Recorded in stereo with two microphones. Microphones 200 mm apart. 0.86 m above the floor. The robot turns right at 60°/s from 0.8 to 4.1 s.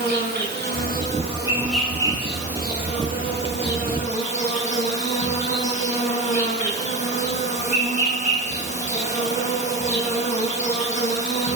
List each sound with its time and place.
0.0 s an insect: 60° right, 5.5 m; by 11.6 s 140° left, 5.5 m